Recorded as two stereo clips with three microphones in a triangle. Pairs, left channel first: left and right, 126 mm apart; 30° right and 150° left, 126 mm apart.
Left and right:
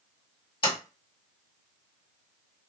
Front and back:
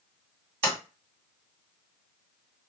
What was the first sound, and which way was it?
A sliding door, 45° left.